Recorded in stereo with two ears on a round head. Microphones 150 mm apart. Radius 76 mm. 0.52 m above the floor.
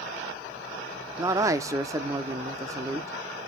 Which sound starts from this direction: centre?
A man speaking, at 1.2 s.